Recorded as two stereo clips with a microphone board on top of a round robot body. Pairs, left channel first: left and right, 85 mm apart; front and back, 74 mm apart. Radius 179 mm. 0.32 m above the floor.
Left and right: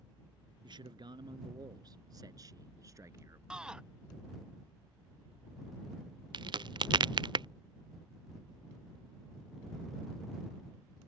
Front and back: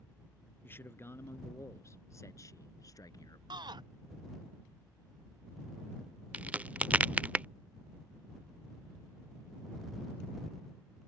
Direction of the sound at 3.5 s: 170° right.